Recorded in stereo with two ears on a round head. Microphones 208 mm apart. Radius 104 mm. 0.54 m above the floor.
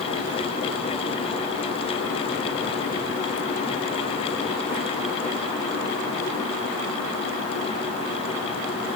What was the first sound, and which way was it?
Only background noise.